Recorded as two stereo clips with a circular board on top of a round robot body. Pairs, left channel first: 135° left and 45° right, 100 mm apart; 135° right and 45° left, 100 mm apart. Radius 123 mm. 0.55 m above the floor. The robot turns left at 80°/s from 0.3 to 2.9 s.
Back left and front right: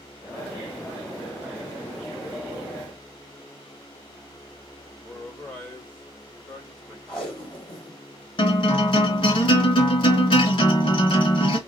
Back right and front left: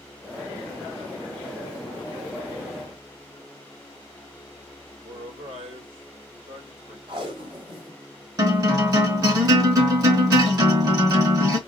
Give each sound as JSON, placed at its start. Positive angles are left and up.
{"t": 5.0, "sound": "a man speaking", "azimuth_deg": 60, "distance_m": 1.9}
{"t": 7.1, "sound": "tape being pulled", "azimuth_deg": 55, "distance_m": 2.0}
{"t": 8.4, "sound": "a guitar", "azimuth_deg": 95, "distance_m": 1.8}